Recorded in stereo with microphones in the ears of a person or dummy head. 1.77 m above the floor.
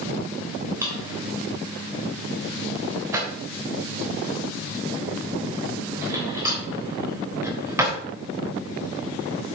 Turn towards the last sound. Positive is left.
turn(degrees=-15)  # may be behind; listen again after turning